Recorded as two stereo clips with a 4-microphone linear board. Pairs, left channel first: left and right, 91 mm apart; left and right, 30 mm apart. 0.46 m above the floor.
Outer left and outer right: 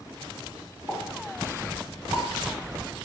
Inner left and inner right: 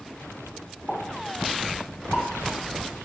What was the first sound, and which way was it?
A pop, 30° right (ahead or behind).